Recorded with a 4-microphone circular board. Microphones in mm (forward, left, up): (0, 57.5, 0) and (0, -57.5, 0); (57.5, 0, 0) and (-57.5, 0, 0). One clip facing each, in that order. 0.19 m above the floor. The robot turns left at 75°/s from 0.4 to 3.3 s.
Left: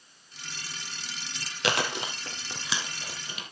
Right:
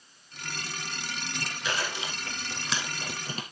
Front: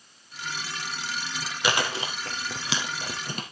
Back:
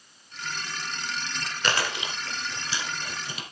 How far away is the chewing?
About 2.5 m.